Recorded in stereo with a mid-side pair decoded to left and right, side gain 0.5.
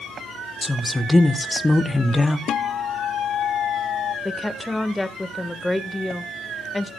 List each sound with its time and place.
0.6 s a woman speaking: 15° left, 1.2 m
2.5 s a guitar: 60° left, 0.6 m
4.2 s a woman speaking: 10° left, 1.5 m